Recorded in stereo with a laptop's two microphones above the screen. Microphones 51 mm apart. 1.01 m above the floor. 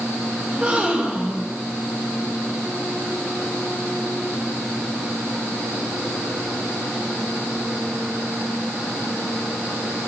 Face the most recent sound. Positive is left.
turn(degrees=-30)  # may be behind; listen again after turning